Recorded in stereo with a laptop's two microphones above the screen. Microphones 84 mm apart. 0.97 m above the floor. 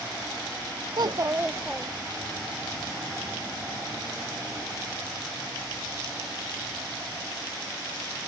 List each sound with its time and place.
1.0 s a child speaking: 55° right (ahead or behind), 0.7 m; by 2.4 s 20° left (ahead or behind), 1.4 m